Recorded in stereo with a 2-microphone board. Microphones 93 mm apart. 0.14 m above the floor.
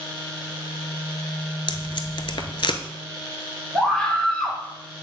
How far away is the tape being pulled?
About 0.7 m.